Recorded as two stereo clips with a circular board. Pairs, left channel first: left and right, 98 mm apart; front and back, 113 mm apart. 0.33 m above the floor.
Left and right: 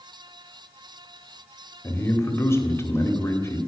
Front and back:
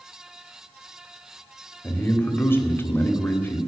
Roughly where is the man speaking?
Ahead left.